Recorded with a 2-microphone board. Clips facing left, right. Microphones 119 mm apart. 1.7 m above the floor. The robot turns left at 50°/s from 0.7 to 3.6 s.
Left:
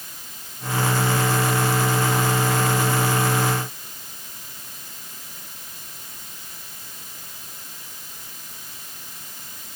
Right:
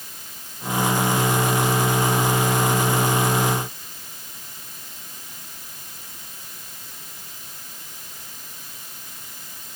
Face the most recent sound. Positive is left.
No sound to turn to.